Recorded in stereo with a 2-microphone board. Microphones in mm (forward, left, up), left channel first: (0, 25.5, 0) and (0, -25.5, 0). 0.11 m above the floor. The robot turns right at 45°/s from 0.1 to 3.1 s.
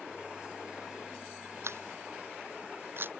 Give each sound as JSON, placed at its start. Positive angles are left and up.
{"t": 1.6, "sound": "a camera shutter", "side_deg": -65}